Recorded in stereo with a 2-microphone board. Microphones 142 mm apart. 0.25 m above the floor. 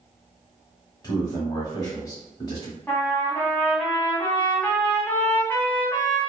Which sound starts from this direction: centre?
A trumpet, at 2.9 s.